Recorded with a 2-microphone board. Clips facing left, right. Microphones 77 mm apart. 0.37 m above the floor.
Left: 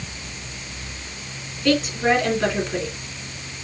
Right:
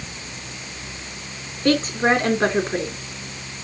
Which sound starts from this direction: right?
A woman speaking, at 1.6 s.